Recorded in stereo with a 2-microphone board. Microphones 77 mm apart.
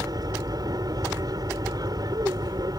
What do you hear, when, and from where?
0.0 s an aircraft: 55° right (ahead or behind)